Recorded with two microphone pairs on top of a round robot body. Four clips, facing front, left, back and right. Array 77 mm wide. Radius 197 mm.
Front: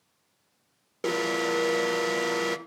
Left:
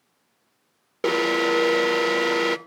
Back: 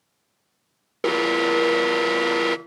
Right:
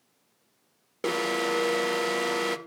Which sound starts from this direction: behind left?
An alarm, at 1.0 s.